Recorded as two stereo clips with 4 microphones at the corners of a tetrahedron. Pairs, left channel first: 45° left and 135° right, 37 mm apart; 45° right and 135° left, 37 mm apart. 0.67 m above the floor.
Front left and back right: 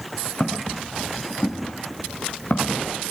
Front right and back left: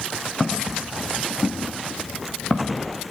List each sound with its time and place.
0.4 s footsteps: 15° left, 7 m; by 2.8 s 10° left, 5.5 m